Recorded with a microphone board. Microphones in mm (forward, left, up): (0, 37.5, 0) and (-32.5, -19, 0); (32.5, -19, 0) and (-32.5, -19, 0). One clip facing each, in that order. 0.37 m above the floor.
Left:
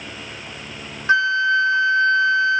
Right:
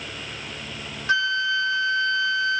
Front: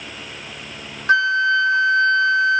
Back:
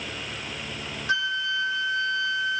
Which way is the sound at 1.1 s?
10° left.